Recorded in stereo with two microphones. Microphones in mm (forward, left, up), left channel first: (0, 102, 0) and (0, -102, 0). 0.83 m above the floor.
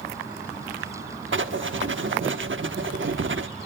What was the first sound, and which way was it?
Writing, 70° right (ahead or behind).